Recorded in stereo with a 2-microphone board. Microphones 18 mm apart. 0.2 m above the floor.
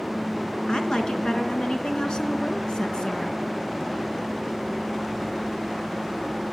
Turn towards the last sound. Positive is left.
turn(degrees=55)  # may be behind; listen again after turning